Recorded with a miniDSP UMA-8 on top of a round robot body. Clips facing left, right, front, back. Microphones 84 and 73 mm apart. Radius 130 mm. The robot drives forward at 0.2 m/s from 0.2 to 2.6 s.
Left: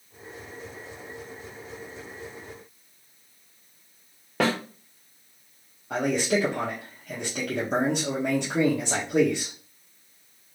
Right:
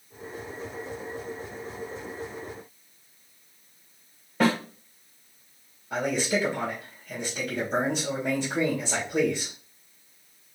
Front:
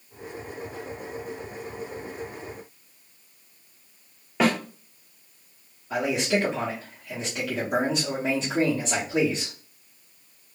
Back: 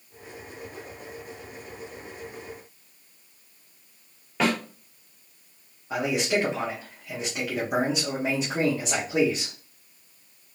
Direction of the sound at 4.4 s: 80° left.